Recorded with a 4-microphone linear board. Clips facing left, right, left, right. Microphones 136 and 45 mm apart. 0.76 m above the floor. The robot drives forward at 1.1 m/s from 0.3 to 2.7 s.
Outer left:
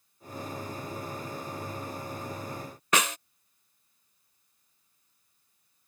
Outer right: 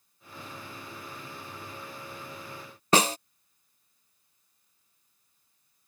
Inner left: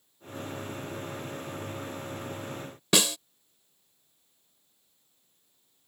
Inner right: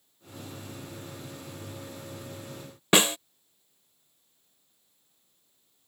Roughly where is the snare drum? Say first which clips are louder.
Outer right 5 dB, inner right 4 dB; right.